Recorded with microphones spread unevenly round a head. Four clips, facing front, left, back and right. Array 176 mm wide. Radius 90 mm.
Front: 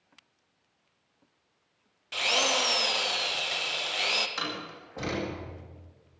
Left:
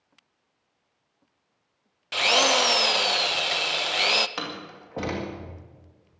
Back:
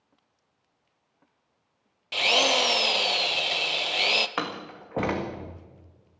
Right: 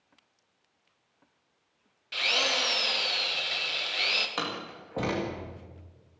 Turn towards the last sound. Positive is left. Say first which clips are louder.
# even, back 4 dB
turn(degrees=180)